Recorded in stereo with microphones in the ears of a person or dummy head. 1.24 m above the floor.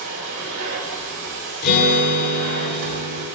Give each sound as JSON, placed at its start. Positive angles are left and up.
{"t": 0.0, "sound": "a machine running", "side_deg": -60, "distance_m": 3.5}
{"t": 1.6, "sound": "a guitar", "side_deg": 50, "distance_m": 3.0}